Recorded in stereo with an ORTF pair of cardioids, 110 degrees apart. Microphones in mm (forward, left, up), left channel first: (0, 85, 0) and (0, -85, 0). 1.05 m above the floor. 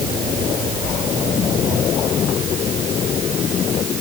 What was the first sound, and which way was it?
Only background noise.